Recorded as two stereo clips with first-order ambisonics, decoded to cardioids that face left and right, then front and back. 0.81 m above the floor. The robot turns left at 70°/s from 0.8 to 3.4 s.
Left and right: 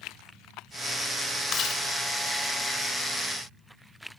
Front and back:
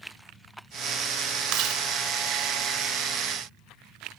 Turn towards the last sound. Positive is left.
turn(degrees=20)